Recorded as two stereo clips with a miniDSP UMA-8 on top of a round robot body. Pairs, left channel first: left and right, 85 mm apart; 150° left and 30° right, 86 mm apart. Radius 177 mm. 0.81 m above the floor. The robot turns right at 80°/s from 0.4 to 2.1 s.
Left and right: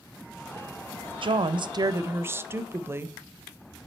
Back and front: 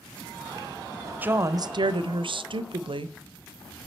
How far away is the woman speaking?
About 0.6 m.